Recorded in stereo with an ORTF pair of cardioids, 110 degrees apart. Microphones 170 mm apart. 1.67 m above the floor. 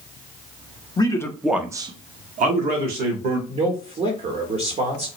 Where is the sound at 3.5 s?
40° right, 0.8 m.